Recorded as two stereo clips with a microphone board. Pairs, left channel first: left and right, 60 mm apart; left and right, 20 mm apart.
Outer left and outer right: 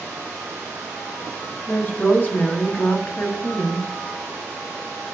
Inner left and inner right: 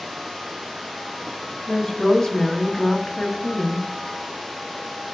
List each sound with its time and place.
1.7 s a woman speaking: 30° left (ahead or behind), 0.9 m